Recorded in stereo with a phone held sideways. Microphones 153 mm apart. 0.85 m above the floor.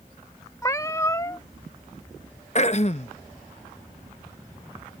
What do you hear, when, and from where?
0.6 s a cat meowing: 20° left (ahead or behind)
2.5 s throat clearing: 50° left (ahead or behind)